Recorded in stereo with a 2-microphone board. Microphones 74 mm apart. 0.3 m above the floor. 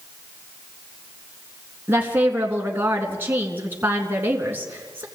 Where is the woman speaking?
25° right (ahead or behind), 3.5 m.